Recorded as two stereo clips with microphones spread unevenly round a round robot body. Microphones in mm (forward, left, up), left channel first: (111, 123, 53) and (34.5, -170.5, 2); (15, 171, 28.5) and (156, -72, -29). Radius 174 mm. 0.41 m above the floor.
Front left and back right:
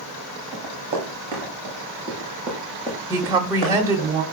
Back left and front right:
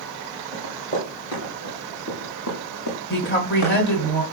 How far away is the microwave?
I don't hear a microwave.